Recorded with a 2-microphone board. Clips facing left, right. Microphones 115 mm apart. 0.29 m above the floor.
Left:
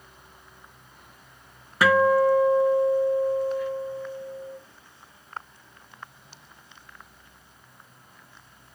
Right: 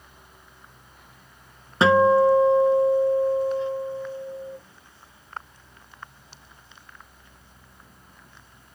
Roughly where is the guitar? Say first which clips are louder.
Right 3 dB; right.